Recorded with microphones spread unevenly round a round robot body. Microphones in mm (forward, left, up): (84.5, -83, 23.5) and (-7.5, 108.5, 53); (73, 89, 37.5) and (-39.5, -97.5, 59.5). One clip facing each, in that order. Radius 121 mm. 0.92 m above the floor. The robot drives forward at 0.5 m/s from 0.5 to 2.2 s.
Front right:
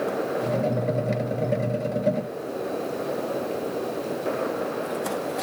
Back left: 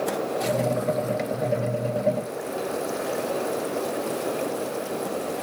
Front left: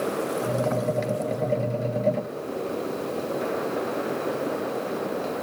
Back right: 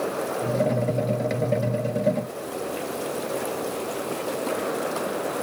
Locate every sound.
Only background noise.